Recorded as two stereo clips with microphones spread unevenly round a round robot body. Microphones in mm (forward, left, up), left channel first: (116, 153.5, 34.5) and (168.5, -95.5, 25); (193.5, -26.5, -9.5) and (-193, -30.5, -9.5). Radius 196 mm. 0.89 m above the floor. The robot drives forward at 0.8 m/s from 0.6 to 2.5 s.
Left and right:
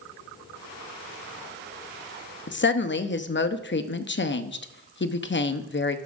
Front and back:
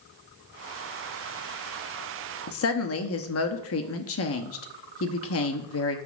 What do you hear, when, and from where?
2.5 s a woman speaking: 55° left, 1.1 m